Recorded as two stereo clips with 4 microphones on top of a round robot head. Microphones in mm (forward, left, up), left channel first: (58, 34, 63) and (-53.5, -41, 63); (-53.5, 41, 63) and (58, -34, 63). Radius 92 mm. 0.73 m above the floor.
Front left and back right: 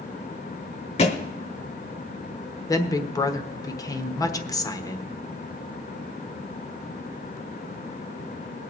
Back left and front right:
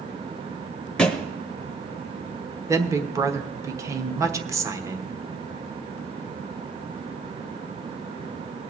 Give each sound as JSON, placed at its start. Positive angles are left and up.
{"t": 1.0, "sound": "a thud", "azimuth_deg": 65, "distance_m": 0.5}
{"t": 2.7, "sound": "a woman speaking", "azimuth_deg": 5, "distance_m": 1.1}